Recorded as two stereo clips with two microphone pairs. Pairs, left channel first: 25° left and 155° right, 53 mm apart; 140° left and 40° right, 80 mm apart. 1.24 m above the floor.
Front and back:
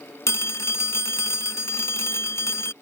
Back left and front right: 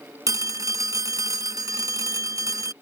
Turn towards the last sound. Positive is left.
turn(degrees=5)